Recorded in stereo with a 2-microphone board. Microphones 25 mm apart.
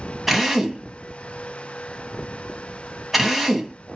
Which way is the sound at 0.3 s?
Centre (ahead or behind).